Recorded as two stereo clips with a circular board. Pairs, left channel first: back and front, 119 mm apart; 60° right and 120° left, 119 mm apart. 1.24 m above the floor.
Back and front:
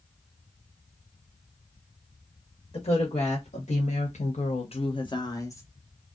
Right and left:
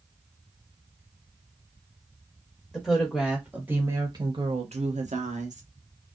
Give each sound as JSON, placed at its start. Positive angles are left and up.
{"t": 2.7, "sound": "a woman speaking", "azimuth_deg": -145, "distance_m": 1.3}